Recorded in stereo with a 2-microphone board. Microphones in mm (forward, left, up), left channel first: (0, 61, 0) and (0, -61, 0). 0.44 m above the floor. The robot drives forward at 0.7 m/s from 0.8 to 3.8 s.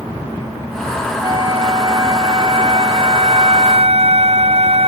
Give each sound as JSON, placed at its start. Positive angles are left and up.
{"t": 1.2, "sound": "a flute", "side_deg": -35}